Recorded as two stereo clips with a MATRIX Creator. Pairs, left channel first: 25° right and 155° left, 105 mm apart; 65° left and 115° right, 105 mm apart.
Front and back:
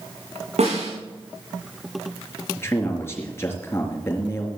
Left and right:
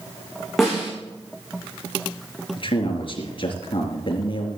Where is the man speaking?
40° left, 4 m.